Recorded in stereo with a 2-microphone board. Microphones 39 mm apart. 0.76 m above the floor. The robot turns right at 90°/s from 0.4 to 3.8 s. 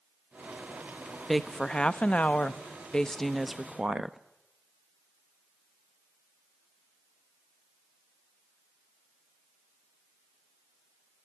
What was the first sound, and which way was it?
A woman speaking, centre (ahead or behind).